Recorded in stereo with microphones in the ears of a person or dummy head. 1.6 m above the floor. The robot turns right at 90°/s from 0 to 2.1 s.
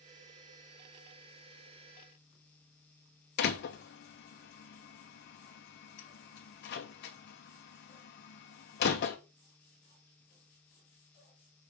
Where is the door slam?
55° left (ahead or behind), 0.9 m.